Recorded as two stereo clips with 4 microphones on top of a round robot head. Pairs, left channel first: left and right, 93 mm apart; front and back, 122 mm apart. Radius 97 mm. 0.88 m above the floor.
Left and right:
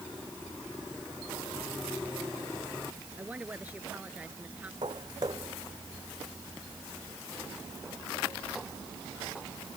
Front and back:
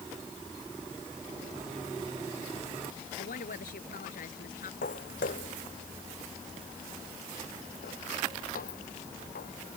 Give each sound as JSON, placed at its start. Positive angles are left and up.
{"t": 3.2, "sound": "a woman speaking", "azimuth_deg": -10}
{"t": 4.8, "sound": "footsteps", "azimuth_deg": -30}